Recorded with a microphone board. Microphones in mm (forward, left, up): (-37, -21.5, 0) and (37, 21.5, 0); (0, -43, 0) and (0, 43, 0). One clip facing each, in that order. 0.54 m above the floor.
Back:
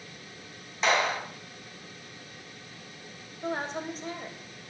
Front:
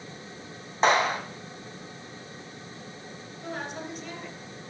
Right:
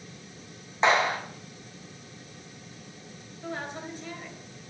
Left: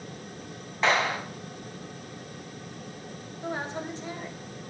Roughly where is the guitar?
No guitar in this recording.